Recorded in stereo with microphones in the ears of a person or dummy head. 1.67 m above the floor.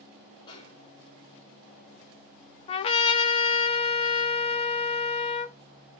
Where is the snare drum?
25° left (ahead or behind), 1.2 m.